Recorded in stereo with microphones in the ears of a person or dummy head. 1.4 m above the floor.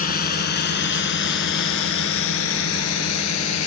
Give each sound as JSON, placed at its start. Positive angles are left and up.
{"t": 0.0, "sound": "a drone", "side_deg": 45}